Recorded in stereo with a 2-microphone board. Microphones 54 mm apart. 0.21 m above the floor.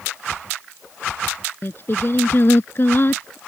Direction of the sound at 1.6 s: 50° left (ahead or behind).